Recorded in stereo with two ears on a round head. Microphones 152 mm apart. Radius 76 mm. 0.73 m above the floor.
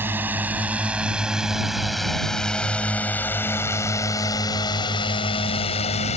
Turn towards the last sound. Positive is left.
turn(degrees=40)  # may be behind; listen again after turning